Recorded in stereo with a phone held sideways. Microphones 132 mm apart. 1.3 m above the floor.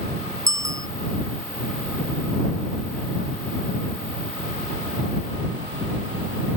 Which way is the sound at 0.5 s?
25° right (ahead or behind).